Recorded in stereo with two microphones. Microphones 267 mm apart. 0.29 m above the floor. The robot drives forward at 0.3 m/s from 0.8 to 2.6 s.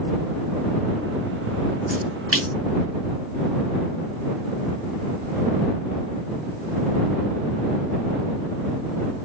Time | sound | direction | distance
1.9 | a splash | 55° right (ahead or behind) | 2.5 m